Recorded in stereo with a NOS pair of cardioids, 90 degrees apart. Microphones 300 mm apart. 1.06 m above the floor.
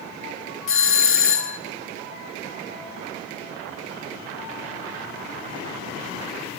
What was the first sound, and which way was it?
A doorbell, 45° left.